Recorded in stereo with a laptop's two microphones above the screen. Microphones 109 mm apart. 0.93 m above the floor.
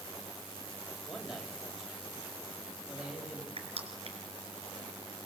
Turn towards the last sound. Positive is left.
turn(degrees=-65)  # may be behind; listen again after turning